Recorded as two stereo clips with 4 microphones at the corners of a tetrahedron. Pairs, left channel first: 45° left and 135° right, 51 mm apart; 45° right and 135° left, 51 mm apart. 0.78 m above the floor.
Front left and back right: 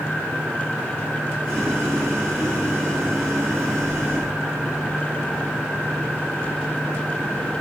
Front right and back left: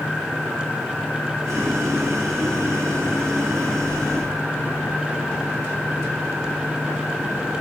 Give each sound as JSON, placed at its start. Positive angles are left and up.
{"t": 1.4, "sound": "boiling", "azimuth_deg": 160, "distance_m": 5.5}